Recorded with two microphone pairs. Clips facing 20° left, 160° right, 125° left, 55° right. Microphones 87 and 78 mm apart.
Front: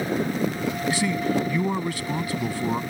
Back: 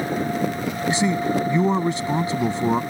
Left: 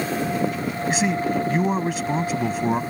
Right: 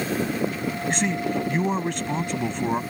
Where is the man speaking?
160° right.